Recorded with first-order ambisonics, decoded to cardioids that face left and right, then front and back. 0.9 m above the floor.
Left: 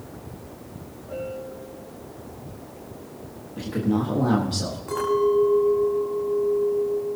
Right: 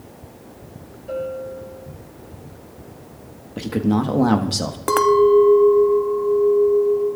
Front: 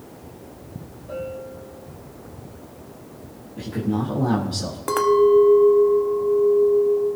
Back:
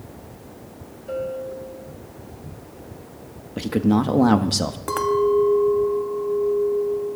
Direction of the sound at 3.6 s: 140° right.